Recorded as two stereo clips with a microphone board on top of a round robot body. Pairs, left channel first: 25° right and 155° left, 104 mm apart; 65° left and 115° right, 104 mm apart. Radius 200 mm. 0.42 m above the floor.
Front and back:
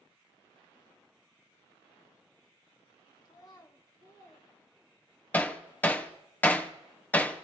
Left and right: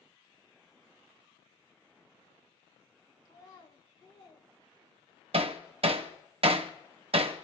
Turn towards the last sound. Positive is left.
turn(degrees=-95)